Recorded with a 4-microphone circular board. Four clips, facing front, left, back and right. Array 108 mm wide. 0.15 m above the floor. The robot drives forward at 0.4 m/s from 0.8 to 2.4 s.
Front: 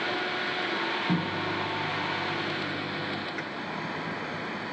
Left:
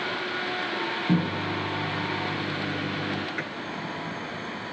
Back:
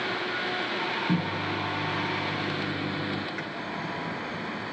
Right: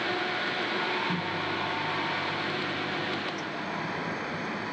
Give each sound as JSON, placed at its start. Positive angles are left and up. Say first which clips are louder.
{"t": 1.1, "sound": "a microwave", "louder": "left 5 dB, back 1 dB", "azimuth_deg": 90, "distance_m": 1.5}
{"t": 3.4, "sound": "a microwave", "louder": "left 2 dB, even", "azimuth_deg": 90, "distance_m": 2.0}